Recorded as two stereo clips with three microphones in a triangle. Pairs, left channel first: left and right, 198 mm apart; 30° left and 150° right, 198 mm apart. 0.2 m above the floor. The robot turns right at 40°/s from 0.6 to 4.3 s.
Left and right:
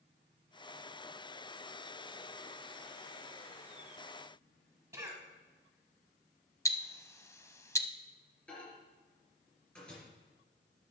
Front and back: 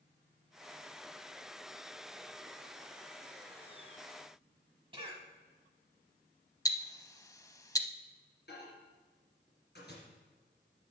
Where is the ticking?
50° left, 0.5 m.